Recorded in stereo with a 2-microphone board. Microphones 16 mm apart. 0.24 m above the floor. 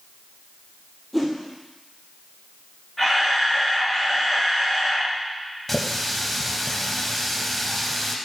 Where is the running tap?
10° left (ahead or behind), 0.7 m.